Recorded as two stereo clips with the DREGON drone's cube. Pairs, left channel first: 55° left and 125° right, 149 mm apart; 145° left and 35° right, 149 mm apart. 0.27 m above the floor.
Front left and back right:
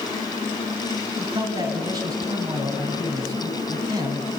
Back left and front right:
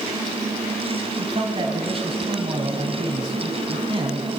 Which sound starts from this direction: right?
A man speaking, at 1.2 s.